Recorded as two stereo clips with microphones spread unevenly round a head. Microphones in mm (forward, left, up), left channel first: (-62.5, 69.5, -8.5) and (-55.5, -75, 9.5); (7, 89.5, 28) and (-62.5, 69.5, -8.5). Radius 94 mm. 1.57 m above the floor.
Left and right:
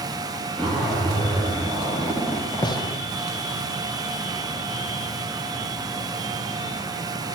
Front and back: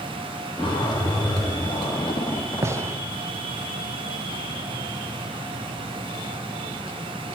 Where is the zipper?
Straight ahead, 2.5 m.